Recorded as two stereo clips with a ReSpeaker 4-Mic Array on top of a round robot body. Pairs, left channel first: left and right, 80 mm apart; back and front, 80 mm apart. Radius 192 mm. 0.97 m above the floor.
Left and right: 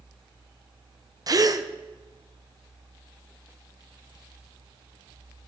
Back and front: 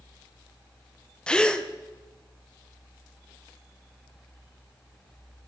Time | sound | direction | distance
1.3 | a gasp | 100° right | 1.1 m